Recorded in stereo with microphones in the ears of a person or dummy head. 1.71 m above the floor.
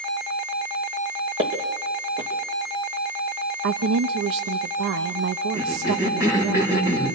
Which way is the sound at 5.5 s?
20° right (ahead or behind).